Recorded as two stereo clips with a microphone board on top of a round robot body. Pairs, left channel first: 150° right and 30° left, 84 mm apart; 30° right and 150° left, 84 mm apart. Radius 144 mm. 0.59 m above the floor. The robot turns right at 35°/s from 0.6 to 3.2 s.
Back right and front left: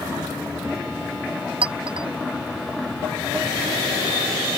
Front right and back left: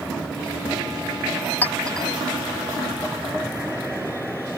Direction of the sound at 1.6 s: 40° left.